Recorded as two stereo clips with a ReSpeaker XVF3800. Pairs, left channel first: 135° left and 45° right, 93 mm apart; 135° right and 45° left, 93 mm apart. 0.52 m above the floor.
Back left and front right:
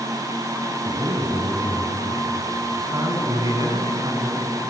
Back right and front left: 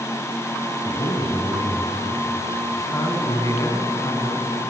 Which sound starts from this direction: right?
A man speaking, at 0.8 s.